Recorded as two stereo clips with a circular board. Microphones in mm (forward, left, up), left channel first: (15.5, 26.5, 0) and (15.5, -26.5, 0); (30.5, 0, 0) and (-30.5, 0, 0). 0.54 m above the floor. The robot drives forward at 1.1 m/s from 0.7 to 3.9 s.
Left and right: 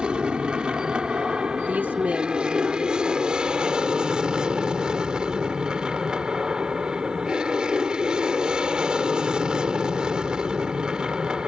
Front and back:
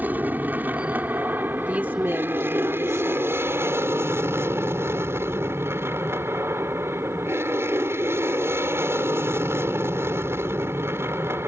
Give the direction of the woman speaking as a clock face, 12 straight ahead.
4 o'clock.